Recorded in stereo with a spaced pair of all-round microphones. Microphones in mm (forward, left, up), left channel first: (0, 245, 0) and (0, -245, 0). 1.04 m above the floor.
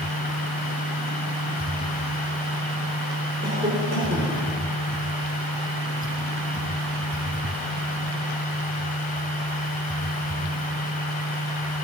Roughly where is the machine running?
Centre.